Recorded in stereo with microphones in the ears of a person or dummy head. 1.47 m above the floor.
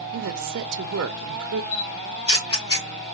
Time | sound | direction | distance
0.1 | a woman speaking | 80° right | 0.7 m
1.7 | a camera shutter | 30° left (ahead or behind) | 2 m